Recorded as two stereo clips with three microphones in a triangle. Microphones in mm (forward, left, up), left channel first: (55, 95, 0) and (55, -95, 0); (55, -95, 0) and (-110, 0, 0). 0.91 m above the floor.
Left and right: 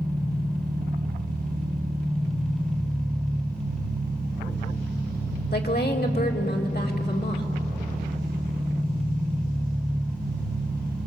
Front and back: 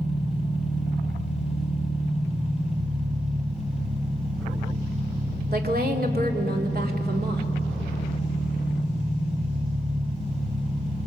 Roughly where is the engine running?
Behind right.